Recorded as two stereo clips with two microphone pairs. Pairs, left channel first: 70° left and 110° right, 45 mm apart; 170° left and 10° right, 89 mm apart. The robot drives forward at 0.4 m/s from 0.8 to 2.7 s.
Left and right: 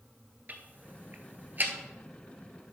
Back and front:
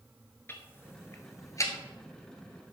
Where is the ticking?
135° right, 1.3 m; by 1.7 s 145° right, 1.6 m.